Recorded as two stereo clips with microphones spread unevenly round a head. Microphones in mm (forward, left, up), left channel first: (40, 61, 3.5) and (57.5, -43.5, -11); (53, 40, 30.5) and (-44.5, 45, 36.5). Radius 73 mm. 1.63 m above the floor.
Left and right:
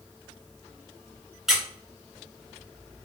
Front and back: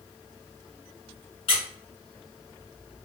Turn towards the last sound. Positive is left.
turn(degrees=10)